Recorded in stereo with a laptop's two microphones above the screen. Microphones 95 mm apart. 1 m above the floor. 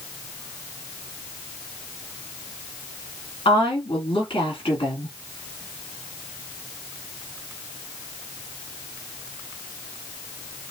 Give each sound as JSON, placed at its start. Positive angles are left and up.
{"t": 3.5, "sound": "a woman speaking", "side_deg": 70, "distance_m": 2.0}